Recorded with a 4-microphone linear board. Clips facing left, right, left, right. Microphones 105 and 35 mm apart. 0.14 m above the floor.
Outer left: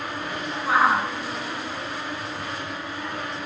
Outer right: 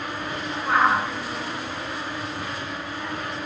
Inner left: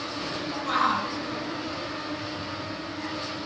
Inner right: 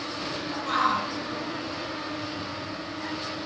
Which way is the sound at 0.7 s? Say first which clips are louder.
Even, even; 5° left (ahead or behind).